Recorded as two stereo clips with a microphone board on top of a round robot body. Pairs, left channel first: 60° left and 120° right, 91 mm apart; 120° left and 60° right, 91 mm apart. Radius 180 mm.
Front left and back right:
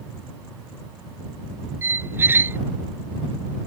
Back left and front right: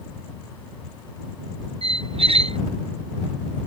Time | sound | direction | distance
1.8 | a squeak | 50° right | ?